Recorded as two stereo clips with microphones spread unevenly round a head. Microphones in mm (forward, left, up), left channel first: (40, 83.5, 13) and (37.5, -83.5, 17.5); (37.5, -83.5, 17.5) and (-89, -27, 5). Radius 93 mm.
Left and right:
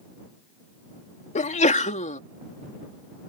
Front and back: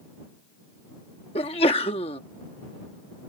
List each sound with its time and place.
1.4 s a sneeze: 40° left